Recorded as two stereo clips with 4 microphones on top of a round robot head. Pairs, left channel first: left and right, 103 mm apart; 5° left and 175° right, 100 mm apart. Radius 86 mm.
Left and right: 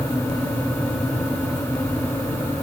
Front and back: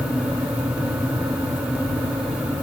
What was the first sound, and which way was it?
Only background noise.